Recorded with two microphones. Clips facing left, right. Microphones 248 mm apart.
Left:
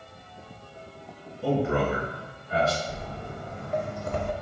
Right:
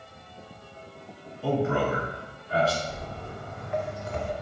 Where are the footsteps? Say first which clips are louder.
Left 1 dB; 5° left (ahead or behind), 0.9 m; by 4.3 s 75° left (ahead or behind), 0.6 m.